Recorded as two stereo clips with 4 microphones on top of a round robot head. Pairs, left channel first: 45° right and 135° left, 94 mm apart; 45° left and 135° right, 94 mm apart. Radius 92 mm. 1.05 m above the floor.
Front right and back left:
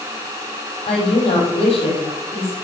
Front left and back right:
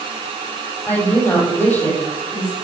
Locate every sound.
0.9 s a woman speaking: 20° right, 5.5 m